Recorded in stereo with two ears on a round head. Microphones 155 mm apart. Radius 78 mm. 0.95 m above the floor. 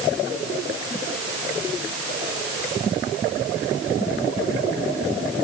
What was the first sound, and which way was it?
Only background noise.